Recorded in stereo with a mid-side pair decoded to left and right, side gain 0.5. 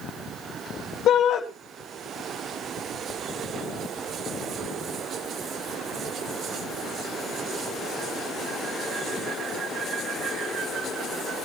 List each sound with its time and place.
1.1 s a shout: 60° left, 3 m